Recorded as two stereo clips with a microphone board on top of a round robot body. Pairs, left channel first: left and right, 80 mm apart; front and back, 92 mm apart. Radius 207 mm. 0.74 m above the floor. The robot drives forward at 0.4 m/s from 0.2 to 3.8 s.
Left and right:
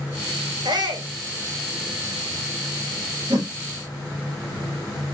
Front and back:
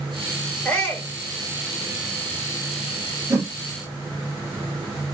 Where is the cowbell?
No cowbell in this recording.